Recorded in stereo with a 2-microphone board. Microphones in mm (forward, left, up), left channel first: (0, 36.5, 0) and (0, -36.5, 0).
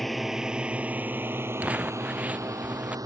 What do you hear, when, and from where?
0.0 s a drone: centre (ahead or behind); by 3.1 s 50° right (ahead or behind)
1.6 s crumpling: 20° right (ahead or behind)